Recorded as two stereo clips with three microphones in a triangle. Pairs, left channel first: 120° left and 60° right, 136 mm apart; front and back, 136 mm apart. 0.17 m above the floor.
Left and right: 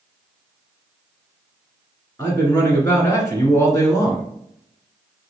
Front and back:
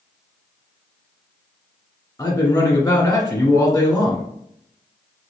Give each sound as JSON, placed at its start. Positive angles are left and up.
{"t": 2.2, "sound": "a man speaking", "azimuth_deg": 60, "distance_m": 1.6}